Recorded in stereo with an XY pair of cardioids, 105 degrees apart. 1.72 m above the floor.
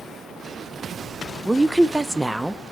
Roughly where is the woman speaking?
Ahead.